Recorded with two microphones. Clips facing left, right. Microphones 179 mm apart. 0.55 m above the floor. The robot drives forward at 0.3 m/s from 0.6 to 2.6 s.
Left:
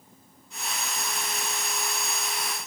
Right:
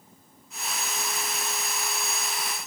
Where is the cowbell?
No cowbell in this recording.